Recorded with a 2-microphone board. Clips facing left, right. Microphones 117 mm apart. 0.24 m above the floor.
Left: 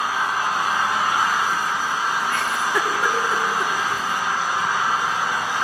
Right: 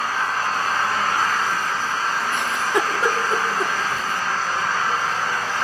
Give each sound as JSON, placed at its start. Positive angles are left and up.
{"t": 0.0, "sound": "an engine running", "side_deg": 10, "distance_m": 1.8}
{"t": 2.3, "sound": "a giggle", "side_deg": -20, "distance_m": 2.0}